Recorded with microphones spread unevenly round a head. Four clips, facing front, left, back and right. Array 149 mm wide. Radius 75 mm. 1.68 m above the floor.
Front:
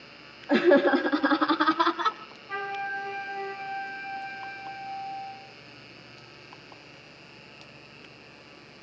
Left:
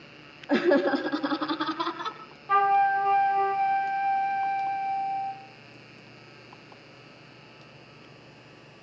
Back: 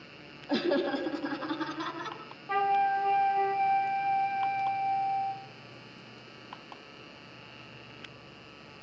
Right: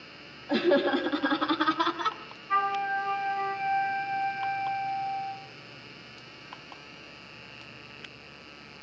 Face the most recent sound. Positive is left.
turn(degrees=130)